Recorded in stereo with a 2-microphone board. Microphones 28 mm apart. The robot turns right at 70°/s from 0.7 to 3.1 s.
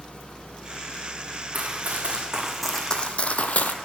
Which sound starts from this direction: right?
Running footsteps, at 1.5 s.